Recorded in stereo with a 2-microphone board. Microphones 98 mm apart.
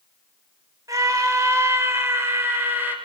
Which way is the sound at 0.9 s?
40° right (ahead or behind).